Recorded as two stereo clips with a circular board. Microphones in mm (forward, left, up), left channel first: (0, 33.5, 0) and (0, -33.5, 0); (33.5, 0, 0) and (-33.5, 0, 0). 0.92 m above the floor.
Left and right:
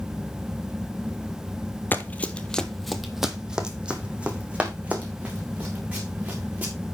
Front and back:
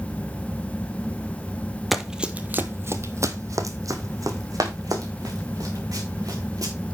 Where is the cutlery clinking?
No cutlery clinking in this recording.